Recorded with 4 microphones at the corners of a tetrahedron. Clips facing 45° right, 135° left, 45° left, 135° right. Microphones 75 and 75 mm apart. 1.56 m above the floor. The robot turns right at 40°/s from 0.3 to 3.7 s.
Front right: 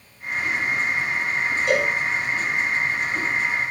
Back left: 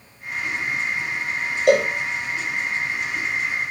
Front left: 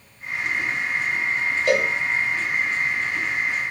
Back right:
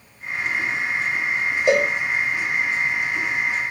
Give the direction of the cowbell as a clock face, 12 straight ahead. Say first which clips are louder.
Back left 6 dB, back right 3 dB; 7 o'clock.